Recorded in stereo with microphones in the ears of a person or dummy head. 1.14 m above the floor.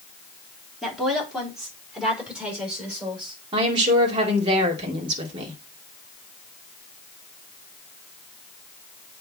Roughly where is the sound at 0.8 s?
Centre.